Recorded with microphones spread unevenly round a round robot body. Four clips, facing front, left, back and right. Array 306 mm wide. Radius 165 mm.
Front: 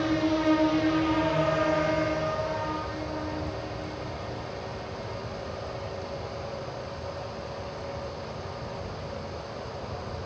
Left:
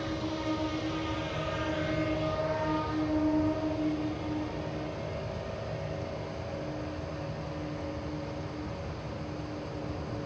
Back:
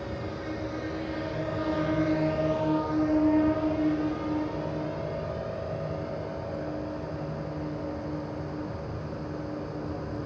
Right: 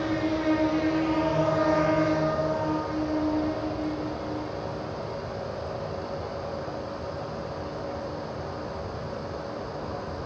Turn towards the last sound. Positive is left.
turn(degrees=170)